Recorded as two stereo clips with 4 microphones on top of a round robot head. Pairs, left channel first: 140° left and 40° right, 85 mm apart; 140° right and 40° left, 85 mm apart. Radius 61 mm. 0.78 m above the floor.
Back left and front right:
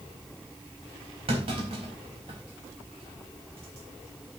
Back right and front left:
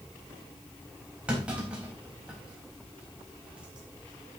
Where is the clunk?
35° right, 4.5 m.